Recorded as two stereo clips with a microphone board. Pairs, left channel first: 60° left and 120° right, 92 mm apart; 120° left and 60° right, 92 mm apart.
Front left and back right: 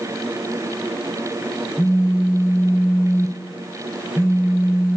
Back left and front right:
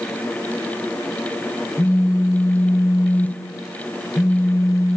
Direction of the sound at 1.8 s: 95° left.